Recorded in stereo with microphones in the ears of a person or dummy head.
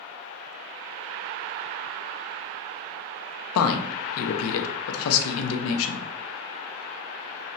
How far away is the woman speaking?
About 0.5 m.